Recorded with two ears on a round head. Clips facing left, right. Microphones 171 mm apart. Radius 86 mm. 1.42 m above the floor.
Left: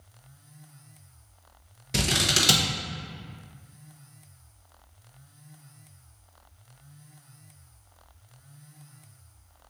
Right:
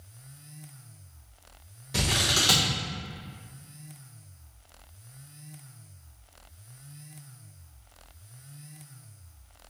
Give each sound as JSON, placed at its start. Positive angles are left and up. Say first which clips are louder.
{"t": 1.9, "sound": "scissors", "louder": "left 2 dB", "side_deg": 25, "distance_m": 0.6}